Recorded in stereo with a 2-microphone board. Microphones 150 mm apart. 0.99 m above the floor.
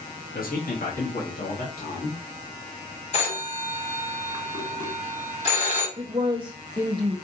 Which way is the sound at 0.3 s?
70° left (ahead or behind).